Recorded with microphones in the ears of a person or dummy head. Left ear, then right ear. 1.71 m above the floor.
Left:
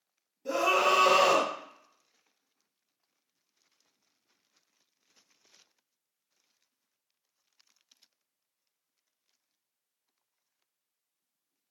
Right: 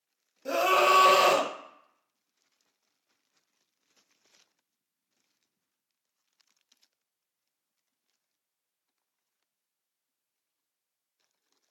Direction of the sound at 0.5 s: 35° right (ahead or behind).